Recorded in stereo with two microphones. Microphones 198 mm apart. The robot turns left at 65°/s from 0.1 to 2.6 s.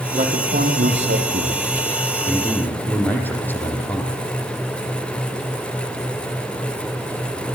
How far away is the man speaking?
About 5 m.